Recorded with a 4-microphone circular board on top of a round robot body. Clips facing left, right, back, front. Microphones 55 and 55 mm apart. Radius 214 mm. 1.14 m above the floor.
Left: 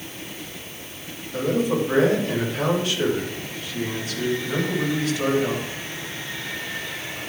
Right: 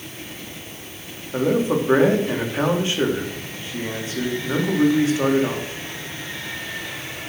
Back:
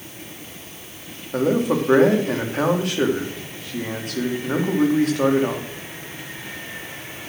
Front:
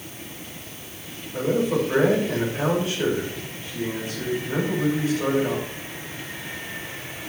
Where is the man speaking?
155° right, 3.5 m.